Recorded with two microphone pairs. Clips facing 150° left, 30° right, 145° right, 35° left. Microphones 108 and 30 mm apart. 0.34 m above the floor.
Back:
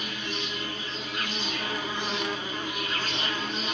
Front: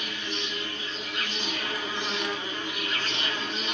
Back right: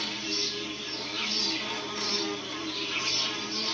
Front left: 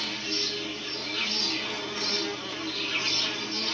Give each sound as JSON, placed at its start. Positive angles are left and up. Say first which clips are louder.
{"t": 0.0, "sound": "an insect", "louder": "even, front left 1 dB", "azimuth_deg": 80, "distance_m": 1.1}